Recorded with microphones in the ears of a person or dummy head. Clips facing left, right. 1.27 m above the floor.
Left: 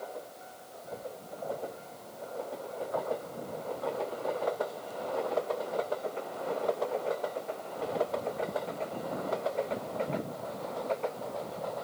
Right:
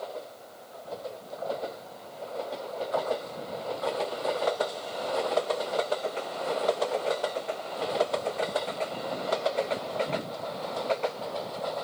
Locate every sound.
Only background noise.